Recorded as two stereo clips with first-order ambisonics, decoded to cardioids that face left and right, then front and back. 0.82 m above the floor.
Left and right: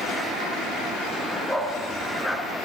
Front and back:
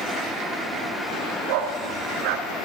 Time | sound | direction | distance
1.5 | a dog barking | 175° left | 2.5 m